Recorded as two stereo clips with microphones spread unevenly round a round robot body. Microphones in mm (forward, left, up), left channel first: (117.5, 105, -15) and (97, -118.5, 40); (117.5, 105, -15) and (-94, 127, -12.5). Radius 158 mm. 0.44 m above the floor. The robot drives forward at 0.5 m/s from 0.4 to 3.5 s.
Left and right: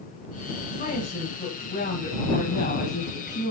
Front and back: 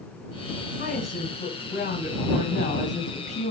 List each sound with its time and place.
0.8 s a woman speaking: 40° left, 5.5 m; by 3.5 s 50° left, 4.5 m